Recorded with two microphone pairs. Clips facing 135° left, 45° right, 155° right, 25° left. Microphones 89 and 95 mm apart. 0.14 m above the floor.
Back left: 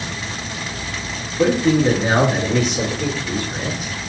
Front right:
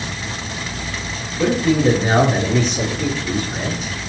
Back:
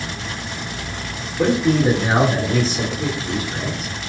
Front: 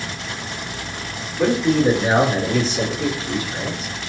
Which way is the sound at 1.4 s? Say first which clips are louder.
Back left 1 dB, even; 135° left.